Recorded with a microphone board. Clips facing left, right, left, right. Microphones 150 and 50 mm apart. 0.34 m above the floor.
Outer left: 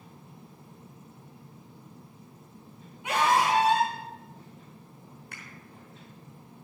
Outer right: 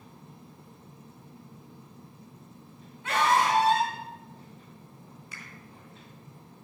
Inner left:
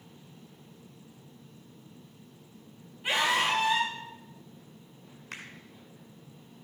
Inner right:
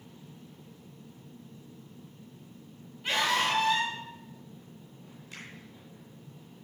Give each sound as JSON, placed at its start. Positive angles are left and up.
{"t": 3.0, "sound": "a scream", "side_deg": 15, "distance_m": 4.0}
{"t": 5.3, "sound": "a finger snap", "side_deg": 65, "distance_m": 4.0}